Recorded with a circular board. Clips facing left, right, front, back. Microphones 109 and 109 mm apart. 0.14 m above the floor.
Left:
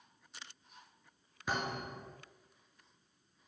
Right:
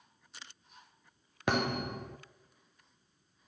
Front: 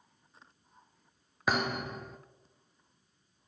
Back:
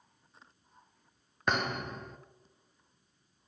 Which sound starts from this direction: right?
A thud, at 1.5 s.